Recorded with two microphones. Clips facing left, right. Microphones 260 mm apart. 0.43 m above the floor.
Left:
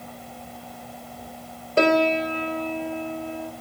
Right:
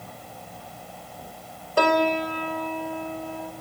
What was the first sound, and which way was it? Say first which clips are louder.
A piano: left 3 dB; 25° left (ahead or behind).